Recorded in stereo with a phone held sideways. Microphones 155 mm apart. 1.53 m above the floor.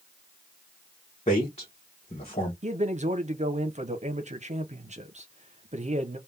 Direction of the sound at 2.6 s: 50° right (ahead or behind).